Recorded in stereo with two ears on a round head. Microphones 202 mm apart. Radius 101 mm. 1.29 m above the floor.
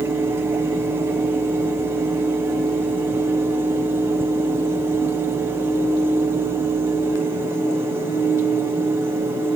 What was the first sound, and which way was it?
Only background noise.